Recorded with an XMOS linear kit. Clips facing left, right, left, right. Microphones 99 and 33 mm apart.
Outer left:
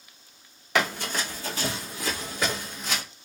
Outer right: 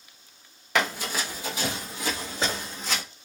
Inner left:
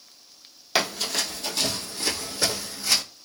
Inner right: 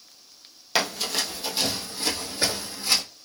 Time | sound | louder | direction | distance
0.8 | running footsteps | even, even | centre (ahead or behind) | 1.2 m